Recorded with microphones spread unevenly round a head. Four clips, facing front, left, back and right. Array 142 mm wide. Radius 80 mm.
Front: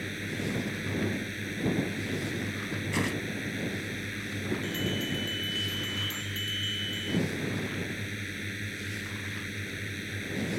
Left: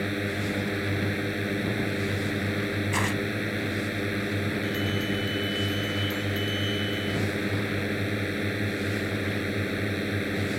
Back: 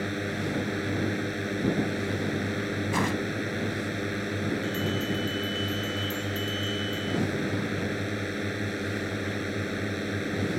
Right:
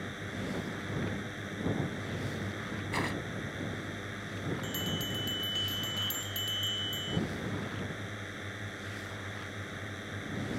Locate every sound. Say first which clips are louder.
0.0 s a drone: left 10 dB, back 5 dB; 115° left
2.9 s tearing paper: left 4 dB, back 3 dB; 165° left
4.6 s a bell: left 9 dB, back 4 dB; 130° right